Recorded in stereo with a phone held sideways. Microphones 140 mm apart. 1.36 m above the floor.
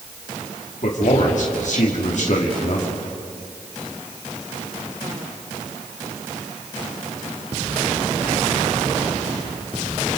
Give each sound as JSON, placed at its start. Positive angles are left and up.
{"t": 0.8, "sound": "a man speaking", "side_deg": 60, "distance_m": 2.5}